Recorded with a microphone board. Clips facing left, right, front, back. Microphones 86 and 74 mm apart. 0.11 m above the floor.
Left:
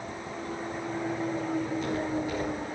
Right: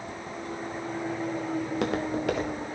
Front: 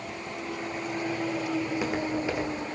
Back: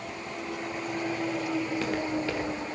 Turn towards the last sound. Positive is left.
turn(degrees=-70)